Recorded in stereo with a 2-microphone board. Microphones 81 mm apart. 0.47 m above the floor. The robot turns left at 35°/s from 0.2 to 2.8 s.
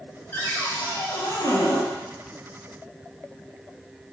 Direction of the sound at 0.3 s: 160° left.